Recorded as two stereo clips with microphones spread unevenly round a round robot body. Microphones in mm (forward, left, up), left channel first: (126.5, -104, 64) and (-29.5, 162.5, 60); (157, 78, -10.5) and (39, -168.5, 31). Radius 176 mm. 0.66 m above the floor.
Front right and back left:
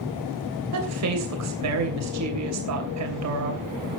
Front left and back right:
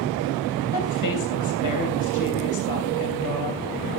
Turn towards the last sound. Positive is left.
turn(degrees=85)